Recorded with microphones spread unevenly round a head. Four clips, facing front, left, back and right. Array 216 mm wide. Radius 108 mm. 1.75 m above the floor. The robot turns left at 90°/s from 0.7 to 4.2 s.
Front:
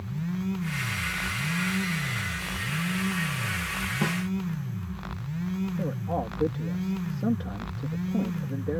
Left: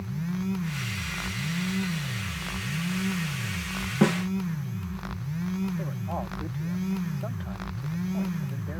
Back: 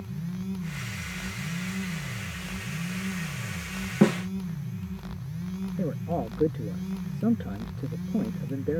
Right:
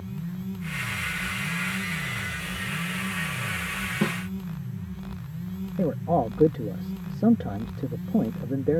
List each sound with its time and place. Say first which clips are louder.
4.0 s a snare drum: left 6 dB, back 8 dB; 170° left; by 4.3 s 150° left
5.8 s a man speaking: right 9 dB, even; 100° right